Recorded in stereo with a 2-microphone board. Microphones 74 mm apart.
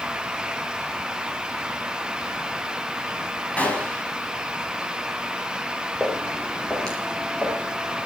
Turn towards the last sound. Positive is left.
turn(degrees=15)  # may be behind; listen again after turning